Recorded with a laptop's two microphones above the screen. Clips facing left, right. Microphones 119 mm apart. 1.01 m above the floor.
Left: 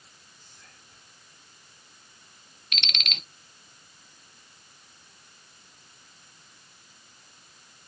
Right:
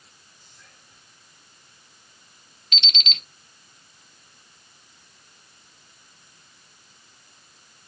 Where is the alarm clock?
60° left (ahead or behind), 0.6 m.